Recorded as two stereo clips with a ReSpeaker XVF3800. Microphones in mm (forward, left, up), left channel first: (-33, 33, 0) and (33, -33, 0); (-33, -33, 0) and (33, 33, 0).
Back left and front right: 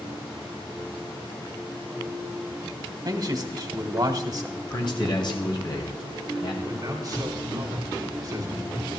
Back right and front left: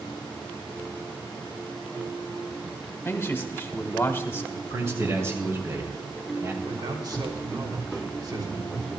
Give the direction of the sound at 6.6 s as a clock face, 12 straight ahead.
12 o'clock.